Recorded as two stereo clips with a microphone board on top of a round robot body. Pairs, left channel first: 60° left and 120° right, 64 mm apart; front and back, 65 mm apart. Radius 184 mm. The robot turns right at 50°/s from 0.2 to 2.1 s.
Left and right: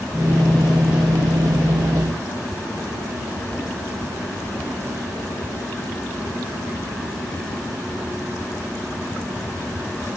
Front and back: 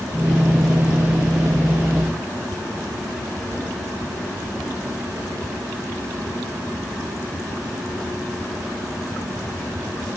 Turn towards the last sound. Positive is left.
No sound to turn to.